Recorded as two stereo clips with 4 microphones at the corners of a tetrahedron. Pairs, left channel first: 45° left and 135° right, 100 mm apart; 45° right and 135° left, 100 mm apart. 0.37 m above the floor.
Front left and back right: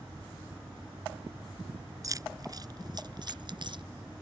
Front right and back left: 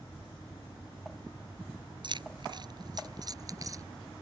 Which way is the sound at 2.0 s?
170° left.